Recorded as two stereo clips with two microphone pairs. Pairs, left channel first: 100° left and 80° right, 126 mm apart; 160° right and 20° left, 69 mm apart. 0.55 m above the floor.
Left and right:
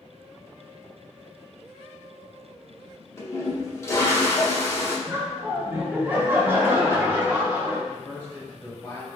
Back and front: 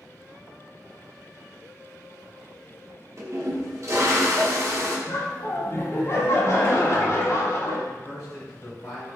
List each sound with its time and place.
3.2 s a toilet flushing: 40° left, 0.7 m
5.1 s laughter: 150° right, 0.8 m
7.9 s a man speaking: 160° left, 1.5 m